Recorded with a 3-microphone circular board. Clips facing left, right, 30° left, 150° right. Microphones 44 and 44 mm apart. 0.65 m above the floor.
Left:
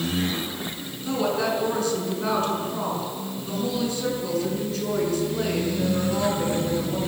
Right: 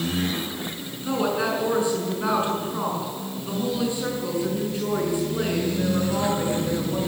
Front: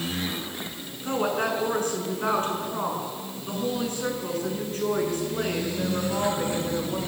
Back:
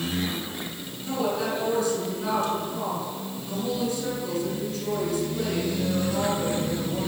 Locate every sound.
1.0 s a woman speaking: 20° right, 7.5 m